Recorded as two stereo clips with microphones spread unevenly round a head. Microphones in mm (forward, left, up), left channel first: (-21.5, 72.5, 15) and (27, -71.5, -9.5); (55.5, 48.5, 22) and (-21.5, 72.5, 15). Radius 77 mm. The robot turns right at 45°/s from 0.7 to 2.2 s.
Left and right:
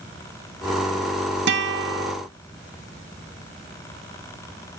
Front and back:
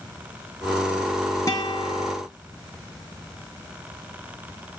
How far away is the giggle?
No giggle in this recording.